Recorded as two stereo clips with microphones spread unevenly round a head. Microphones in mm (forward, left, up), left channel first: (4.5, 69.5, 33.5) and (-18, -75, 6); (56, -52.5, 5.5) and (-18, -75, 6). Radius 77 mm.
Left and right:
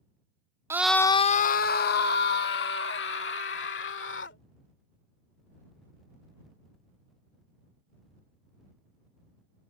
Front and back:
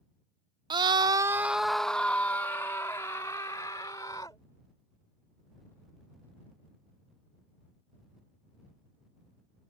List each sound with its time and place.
0.7 s a scream: 165° right; by 4.4 s 85° left